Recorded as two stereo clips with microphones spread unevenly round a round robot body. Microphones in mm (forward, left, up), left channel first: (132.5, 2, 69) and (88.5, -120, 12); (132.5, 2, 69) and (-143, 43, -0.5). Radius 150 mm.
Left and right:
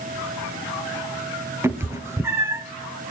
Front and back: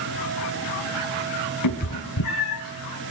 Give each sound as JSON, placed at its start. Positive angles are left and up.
{"t": 1.6, "sound": "a cat meowing", "azimuth_deg": -40, "distance_m": 1.8}